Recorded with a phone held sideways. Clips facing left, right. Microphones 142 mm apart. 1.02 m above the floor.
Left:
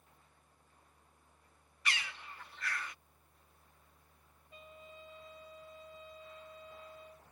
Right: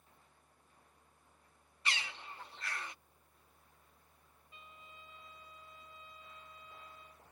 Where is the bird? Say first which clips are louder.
Even; 25° right (ahead or behind).